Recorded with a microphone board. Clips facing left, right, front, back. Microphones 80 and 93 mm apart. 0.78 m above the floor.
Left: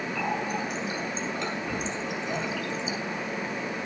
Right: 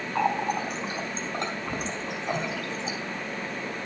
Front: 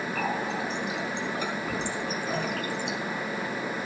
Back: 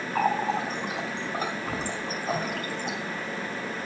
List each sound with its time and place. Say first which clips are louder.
0.1 s a running tap: right 6 dB, back 7 dB; 135° right, 3.5 m